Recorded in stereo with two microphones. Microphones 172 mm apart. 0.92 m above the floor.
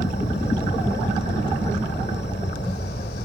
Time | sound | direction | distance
0.0 | an insect | 70° left (ahead or behind) | 1.6 m